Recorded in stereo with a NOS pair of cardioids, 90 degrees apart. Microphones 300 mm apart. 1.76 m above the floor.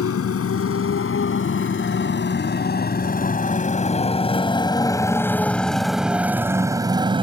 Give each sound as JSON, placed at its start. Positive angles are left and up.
{"t": 0.0, "sound": "a motorcycle", "azimuth_deg": 50}